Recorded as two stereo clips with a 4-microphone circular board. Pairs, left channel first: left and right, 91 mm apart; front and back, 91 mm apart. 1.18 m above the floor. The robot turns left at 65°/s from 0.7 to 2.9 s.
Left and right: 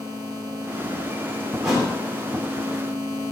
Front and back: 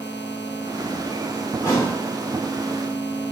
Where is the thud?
Straight ahead, 0.9 m; by 1.9 s 20° right, 0.9 m.